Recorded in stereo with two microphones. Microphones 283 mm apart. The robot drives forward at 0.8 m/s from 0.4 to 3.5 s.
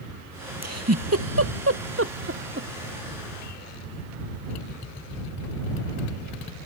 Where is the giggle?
60° right (ahead or behind); by 2.7 s 40° right (ahead or behind).